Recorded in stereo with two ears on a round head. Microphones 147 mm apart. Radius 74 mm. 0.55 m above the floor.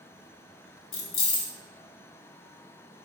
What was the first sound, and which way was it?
Keys jangling, 35° left (ahead or behind).